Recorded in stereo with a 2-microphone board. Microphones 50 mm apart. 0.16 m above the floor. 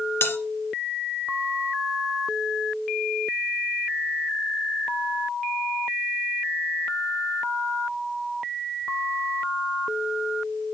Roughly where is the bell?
Left.